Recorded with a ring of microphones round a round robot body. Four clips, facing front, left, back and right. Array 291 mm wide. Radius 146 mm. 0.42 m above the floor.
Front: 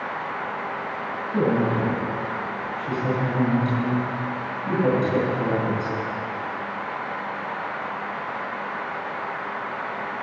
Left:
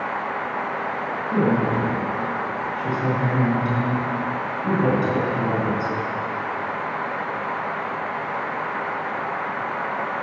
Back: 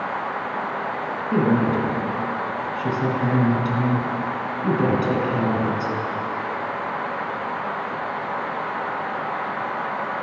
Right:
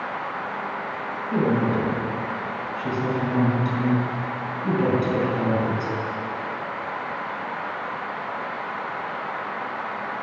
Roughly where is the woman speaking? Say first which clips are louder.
Left 1 dB, back 2 dB; behind.